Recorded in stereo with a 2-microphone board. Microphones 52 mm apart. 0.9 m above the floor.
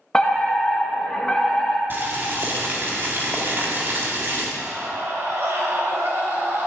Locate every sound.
0.1 s a fire alarm: 15° left (ahead or behind), 1.8 m
1.9 s boiling: 40° right (ahead or behind), 2.0 m
4.6 s a scream: 50° right (ahead or behind), 3.5 m